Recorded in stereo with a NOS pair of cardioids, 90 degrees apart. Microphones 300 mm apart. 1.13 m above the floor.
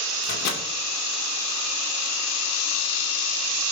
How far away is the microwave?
About 2.5 m.